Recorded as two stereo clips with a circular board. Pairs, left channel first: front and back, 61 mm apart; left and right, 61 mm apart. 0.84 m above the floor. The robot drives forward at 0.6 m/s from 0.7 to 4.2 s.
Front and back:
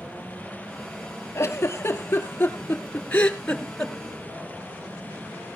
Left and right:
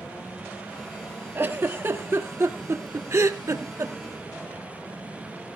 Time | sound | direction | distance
1.4 | a giggle | 45° right | 2.5 m